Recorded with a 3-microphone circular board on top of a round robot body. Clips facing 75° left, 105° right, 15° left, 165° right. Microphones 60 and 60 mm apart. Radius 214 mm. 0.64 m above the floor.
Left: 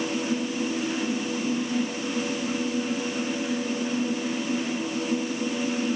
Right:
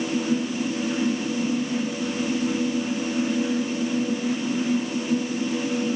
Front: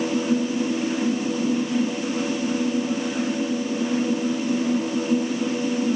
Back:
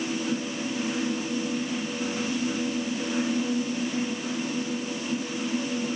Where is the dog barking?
No dog barking in this recording.